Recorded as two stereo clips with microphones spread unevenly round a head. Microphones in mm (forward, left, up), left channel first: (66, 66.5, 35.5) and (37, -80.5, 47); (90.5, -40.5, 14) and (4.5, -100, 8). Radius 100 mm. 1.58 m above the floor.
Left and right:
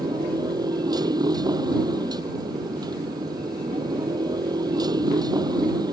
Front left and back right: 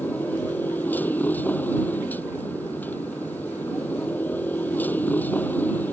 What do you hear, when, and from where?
0.0 s a motorcycle: 40° right